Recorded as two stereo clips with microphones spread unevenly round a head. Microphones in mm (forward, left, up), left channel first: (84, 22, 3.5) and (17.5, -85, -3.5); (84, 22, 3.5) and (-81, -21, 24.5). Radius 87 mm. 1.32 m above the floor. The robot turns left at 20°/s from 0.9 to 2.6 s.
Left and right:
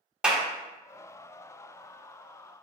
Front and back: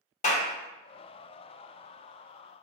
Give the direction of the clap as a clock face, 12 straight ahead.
1 o'clock.